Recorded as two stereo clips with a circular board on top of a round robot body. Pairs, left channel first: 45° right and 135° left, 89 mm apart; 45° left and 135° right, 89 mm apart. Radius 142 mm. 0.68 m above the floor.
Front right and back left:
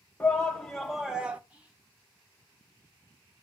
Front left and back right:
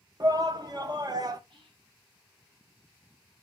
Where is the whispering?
150° right, 2 m.